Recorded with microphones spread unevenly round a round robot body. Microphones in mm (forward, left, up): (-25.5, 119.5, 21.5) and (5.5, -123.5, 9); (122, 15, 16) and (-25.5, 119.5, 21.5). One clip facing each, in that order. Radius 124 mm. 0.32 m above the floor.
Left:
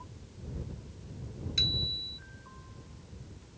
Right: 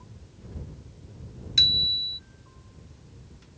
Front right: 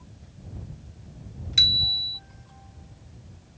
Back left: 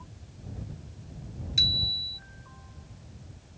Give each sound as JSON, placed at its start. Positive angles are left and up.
{"t": 1.6, "sound": "a bicycle bell", "azimuth_deg": -25}